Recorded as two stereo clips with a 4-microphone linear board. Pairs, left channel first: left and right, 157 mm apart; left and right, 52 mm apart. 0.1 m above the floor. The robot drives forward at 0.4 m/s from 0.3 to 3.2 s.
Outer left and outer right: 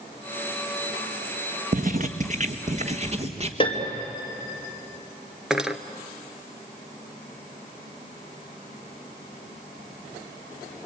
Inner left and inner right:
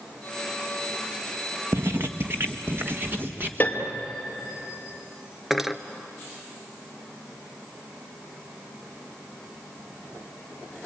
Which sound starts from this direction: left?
A piano, at 3.6 s.